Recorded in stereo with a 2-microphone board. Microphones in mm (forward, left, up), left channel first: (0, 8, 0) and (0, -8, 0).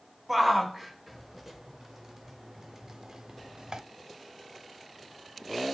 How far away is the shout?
About 2.5 m.